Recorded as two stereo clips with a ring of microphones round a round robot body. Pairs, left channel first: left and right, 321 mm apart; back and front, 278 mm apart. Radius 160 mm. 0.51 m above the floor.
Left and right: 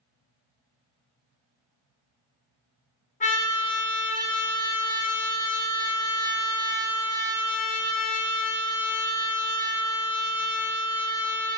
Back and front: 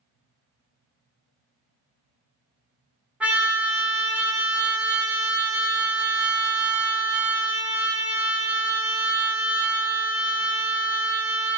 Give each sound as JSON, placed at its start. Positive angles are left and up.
{"t": 3.2, "sound": "a trumpet", "azimuth_deg": 80, "distance_m": 0.9}